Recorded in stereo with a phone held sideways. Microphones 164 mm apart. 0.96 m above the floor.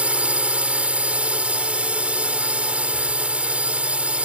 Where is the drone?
10° right (ahead or behind).